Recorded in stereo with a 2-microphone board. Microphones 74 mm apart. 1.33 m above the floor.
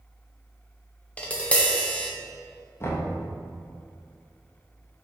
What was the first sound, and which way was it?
Tapping, 15° left (ahead or behind).